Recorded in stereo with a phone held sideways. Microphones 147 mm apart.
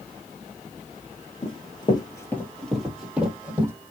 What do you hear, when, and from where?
1.4 s running footsteps: 40° left (ahead or behind), 1.5 m; by 3.7 s 15° right (ahead or behind), 2 m